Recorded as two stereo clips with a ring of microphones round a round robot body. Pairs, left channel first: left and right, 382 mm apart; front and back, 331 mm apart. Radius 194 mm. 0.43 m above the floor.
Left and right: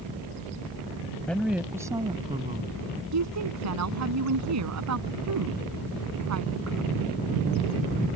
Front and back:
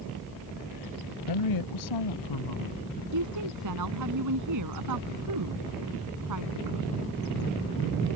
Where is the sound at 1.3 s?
5° left; by 3.0 s 20° right.